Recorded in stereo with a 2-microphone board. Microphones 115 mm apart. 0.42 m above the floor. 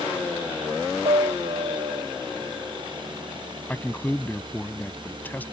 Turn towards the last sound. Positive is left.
turn(degrees=15)  # may be behind; listen again after turning